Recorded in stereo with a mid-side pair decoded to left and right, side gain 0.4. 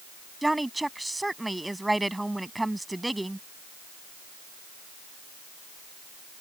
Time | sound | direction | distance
0.4 | a woman speaking | 10° right | ?